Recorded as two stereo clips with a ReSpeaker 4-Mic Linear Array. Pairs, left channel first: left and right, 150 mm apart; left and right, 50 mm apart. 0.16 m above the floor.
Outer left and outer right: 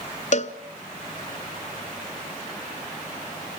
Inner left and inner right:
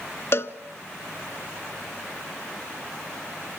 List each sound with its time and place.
0.3 s a cowbell: 55° left (ahead or behind), 0.8 m